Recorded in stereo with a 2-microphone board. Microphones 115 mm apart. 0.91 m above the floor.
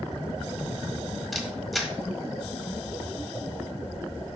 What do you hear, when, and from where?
1.3 s a camera shutter: centre (ahead or behind), 1.3 m